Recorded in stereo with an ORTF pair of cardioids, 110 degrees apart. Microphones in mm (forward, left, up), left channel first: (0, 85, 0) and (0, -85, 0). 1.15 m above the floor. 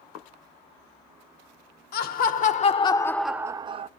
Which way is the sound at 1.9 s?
65° left.